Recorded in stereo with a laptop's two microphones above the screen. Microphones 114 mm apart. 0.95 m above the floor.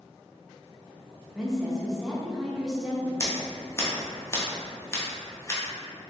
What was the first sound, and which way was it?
A woman speaking, 5° right (ahead or behind).